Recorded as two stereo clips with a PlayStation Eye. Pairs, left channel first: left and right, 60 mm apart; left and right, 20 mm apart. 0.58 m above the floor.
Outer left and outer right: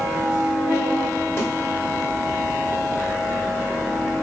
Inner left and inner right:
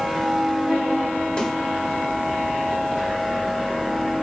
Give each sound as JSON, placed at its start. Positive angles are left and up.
{"t": 1.4, "sound": "a snare drum", "side_deg": 50, "distance_m": 1.5}